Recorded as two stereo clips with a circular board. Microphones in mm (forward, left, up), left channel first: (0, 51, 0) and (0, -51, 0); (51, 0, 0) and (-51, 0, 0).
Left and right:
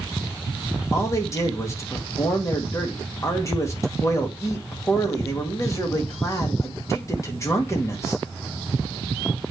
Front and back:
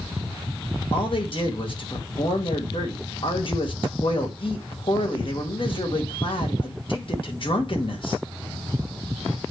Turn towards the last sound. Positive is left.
turn(degrees=30)